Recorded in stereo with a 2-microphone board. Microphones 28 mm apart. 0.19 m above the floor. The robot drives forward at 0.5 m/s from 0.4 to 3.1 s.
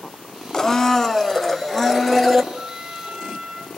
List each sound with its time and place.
0.5 s a blender: 20° left (ahead or behind), 0.6 m; by 2.4 s 10° left (ahead or behind), 1.5 m
2.5 s a trumpet: 20° right (ahead or behind), 3.5 m